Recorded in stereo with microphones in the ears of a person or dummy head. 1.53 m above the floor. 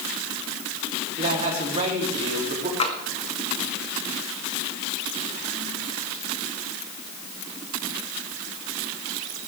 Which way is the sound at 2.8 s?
40° left (ahead or behind).